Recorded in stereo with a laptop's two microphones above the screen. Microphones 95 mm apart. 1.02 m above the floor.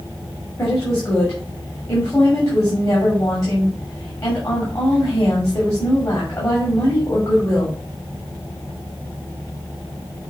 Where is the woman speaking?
35° left (ahead or behind), 2.5 m.